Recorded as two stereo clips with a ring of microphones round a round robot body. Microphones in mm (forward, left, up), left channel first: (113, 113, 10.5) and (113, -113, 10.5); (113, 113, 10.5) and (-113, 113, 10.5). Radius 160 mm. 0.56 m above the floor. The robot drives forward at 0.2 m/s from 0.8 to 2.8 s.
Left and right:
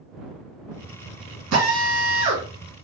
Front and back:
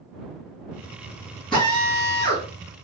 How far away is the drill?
About 1.9 m.